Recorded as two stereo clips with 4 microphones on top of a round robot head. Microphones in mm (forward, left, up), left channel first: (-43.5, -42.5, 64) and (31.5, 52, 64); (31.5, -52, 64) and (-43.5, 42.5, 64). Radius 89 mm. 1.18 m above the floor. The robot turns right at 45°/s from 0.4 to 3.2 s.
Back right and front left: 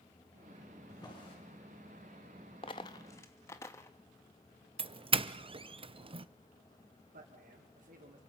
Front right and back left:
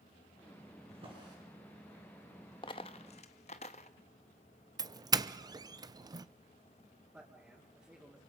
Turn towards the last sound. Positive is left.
turn(degrees=50)